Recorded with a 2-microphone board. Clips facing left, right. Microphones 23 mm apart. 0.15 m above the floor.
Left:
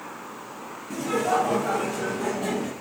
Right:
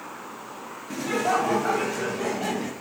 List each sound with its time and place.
0.9 s laughter: 55° right (ahead or behind), 2.5 m